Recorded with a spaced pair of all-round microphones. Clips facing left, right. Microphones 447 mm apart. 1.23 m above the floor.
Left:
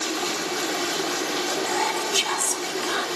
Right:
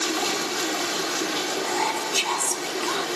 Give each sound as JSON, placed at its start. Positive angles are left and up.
{"t": 1.7, "sound": "whispering", "side_deg": 35, "distance_m": 0.6}